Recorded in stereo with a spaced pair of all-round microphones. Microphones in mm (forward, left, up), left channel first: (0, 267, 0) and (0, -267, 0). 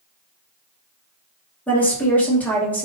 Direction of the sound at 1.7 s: 5° left (ahead or behind).